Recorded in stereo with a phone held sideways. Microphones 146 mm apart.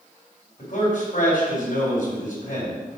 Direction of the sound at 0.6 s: 70° left (ahead or behind).